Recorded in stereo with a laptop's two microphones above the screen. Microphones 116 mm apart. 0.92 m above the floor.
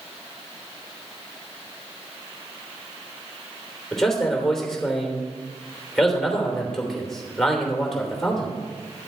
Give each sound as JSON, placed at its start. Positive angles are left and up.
{"t": 3.9, "sound": "a man speaking", "side_deg": 5, "distance_m": 3.0}